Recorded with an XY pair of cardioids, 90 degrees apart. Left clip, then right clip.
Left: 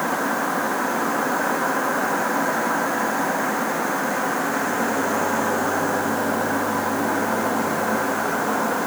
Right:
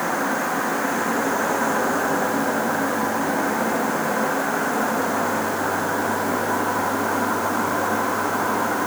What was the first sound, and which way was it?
Only background noise.